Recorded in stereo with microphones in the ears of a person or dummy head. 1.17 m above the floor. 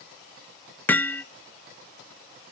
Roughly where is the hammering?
Centre.